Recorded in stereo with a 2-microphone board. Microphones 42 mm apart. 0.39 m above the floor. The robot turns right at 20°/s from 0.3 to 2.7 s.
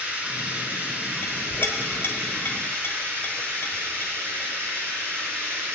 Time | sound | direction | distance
0.0 | running water | 145° right | 3 m
1.2 | a clink | 45° left (ahead or behind) | 1.2 m